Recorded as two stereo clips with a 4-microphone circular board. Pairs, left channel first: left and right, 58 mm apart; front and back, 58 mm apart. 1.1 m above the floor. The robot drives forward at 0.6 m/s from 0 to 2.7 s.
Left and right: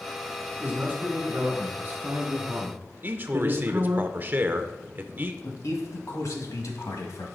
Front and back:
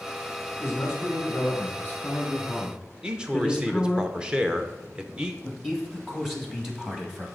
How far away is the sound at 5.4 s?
About 1.5 m.